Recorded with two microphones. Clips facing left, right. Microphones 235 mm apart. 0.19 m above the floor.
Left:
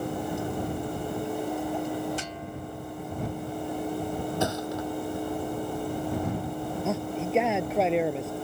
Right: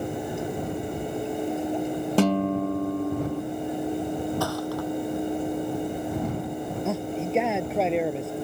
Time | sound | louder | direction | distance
2.2 | a guitar | right 16 dB | 85° right | ?
4.4 | a thud | right 2 dB | 20° left (ahead or behind) | ?
6.8 | a man speaking | right 2 dB | centre (ahead or behind) | ?